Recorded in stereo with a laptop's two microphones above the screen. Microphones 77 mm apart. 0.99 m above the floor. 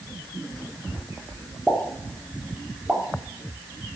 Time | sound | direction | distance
1.7 | a pop | 10° right (ahead or behind) | 3 m